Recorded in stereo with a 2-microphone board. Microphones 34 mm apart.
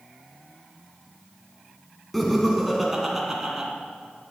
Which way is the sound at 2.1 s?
5° left (ahead or behind).